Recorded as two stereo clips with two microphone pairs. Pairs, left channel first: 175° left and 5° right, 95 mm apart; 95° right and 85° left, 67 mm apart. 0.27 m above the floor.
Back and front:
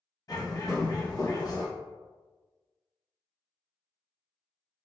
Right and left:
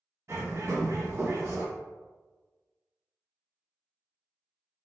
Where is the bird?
130° left, 0.6 m.